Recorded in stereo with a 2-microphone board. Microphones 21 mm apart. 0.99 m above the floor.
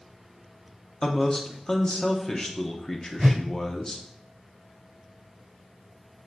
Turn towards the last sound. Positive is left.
turn(degrees=-55)  # may be behind; listen again after turning